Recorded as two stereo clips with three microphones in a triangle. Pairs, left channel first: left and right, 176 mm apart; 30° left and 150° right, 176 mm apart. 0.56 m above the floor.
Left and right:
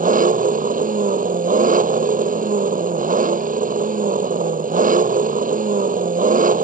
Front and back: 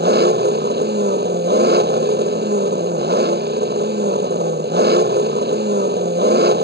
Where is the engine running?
130° right.